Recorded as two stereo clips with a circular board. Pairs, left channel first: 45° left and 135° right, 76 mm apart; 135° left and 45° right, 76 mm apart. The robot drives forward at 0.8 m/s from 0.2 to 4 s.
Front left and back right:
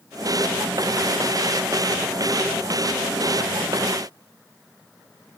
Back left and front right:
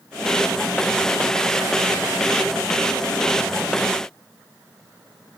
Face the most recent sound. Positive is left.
No sound to turn to.